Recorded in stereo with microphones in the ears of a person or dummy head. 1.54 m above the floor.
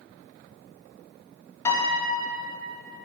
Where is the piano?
15° left (ahead or behind), 0.9 m.